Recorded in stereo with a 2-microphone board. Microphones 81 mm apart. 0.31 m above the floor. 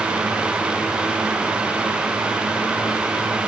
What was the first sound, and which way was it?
Only background noise.